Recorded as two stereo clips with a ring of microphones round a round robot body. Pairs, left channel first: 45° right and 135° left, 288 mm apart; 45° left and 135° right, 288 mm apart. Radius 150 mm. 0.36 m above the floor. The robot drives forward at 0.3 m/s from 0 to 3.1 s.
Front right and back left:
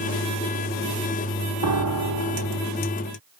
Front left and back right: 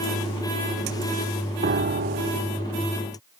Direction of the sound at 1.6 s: 165° left.